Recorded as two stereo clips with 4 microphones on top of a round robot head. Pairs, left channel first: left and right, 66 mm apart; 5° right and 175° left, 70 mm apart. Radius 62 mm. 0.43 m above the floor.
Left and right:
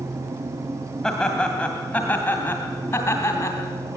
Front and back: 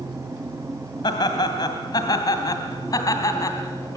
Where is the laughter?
5° left, 2.5 m; by 4.0 s 35° left, 3.5 m.